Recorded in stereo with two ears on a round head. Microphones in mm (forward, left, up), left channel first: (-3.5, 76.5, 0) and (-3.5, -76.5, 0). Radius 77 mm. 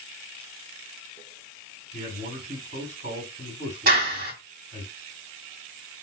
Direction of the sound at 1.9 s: 45° right (ahead or behind).